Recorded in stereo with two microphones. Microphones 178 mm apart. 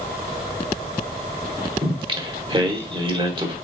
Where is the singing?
30° right (ahead or behind), 0.9 m.